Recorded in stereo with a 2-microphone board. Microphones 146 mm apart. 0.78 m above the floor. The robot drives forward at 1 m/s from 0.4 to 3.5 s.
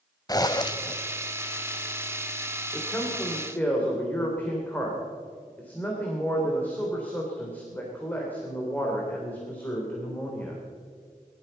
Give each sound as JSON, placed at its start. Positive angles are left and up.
{"t": 0.3, "sound": "a zipper", "side_deg": 25, "distance_m": 0.7}
{"t": 2.7, "sound": "a man speaking", "side_deg": 15, "distance_m": 2.0}